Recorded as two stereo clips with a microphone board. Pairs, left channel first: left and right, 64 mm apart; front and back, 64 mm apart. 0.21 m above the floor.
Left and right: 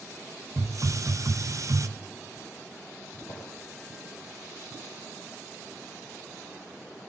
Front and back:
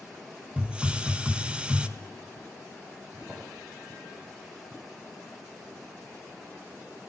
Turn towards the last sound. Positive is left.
turn(degrees=95)